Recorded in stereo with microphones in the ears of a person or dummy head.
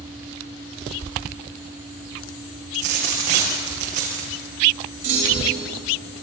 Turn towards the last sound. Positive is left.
turn(degrees=-50)  # may be behind; listen again after turning